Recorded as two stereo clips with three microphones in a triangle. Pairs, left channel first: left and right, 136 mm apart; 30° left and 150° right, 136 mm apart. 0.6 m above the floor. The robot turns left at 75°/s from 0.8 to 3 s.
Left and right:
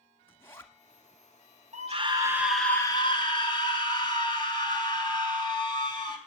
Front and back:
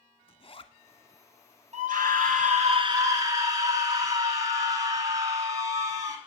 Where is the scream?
120° right, 3.5 m; by 6.2 s 145° left, 3.5 m.